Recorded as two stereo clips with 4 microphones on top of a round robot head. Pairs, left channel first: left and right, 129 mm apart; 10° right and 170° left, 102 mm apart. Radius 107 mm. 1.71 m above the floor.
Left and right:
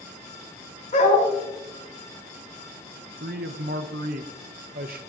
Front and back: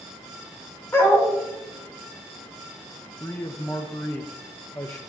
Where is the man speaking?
85° right, 0.8 m.